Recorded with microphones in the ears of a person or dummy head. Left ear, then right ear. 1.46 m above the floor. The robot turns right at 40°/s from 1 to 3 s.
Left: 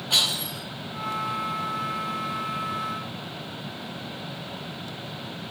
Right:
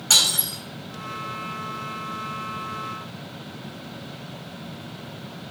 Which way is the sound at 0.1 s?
70° right (ahead or behind).